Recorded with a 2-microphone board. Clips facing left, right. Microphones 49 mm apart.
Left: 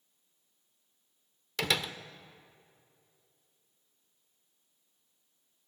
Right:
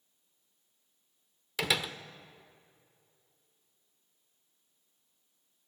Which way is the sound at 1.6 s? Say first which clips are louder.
Even; 5° right (ahead or behind).